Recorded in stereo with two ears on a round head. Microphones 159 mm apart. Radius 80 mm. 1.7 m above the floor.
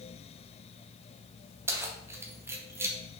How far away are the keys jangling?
About 0.9 m.